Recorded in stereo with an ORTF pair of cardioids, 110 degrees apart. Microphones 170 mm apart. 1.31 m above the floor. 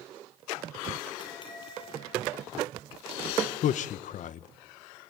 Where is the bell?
30° left, 9.5 m.